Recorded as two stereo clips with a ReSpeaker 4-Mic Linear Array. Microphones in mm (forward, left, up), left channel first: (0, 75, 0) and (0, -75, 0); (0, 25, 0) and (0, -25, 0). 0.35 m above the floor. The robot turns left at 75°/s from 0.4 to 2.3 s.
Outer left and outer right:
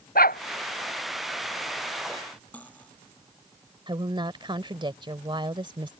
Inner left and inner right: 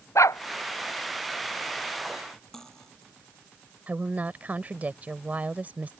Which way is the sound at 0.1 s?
80° left.